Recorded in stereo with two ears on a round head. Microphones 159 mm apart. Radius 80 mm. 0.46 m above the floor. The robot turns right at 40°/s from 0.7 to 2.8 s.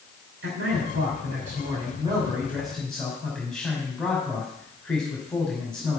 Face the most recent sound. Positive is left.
turn(degrees=5)